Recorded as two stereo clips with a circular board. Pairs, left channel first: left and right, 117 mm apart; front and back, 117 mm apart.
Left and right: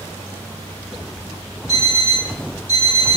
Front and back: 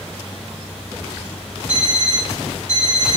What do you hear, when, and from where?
1.7 s an alarm clock: 65° right, 1.4 m